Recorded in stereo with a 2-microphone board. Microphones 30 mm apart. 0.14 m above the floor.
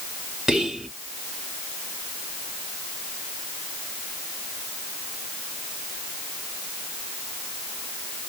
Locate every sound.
0.5 s whispering: 20° right (ahead or behind), 1.6 m